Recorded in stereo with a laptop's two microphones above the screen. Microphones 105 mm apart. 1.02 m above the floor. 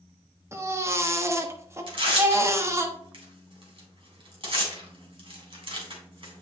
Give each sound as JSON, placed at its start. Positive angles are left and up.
{"t": 0.5, "sound": "a baby crying", "side_deg": -25, "distance_m": 1.1}
{"t": 1.9, "sound": "tearing paper", "side_deg": -55, "distance_m": 3.0}